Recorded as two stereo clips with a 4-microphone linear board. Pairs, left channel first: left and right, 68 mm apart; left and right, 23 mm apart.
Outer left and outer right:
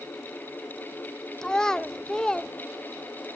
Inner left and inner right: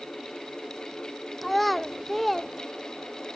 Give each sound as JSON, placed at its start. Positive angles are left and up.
{"t": 1.4, "sound": "a child speaking", "side_deg": 10, "distance_m": 0.5}